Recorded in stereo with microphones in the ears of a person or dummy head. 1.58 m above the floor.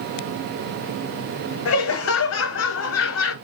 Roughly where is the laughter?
Left.